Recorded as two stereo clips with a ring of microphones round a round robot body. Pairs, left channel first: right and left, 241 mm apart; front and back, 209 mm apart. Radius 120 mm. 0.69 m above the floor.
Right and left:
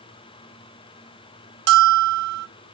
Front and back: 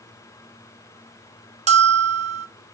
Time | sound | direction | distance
1.7 | a bell | 130° left | 0.7 m